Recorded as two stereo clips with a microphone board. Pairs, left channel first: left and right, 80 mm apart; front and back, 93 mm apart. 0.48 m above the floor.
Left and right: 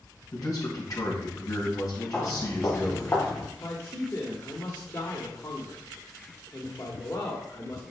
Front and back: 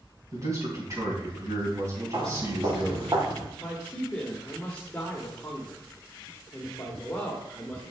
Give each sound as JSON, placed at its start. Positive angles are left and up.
{"t": 0.3, "sound": "a man speaking", "azimuth_deg": 130, "distance_m": 3.5}
{"t": 2.1, "sound": "footsteps", "azimuth_deg": 150, "distance_m": 2.5}
{"t": 3.6, "sound": "a man speaking", "azimuth_deg": 65, "distance_m": 1.2}